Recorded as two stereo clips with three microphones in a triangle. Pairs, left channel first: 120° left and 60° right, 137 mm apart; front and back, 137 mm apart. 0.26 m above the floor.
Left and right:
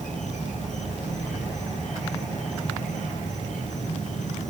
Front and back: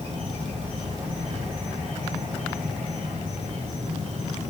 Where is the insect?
140° left, 3 m.